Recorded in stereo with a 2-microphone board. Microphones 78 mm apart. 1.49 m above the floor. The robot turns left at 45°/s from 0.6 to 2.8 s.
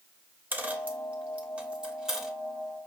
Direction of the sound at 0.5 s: 20° right (ahead or behind).